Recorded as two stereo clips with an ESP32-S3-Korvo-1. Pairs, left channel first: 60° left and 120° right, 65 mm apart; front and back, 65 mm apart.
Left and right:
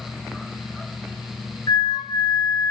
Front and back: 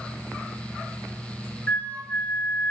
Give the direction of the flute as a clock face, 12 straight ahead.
10 o'clock.